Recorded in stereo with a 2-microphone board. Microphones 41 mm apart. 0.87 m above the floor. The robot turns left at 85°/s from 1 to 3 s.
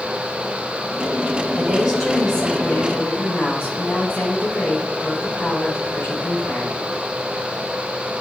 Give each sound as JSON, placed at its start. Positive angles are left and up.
{"t": 1.6, "sound": "a woman speaking", "azimuth_deg": -130, "distance_m": 4.5}